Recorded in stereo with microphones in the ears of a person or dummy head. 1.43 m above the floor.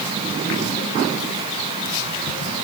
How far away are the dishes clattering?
No dishes clattering in this recording.